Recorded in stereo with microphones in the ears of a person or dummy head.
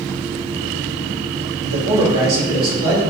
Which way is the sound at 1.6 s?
70° right (ahead or behind).